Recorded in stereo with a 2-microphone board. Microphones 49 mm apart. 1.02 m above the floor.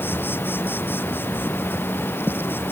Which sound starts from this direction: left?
An insect, at 0.0 s.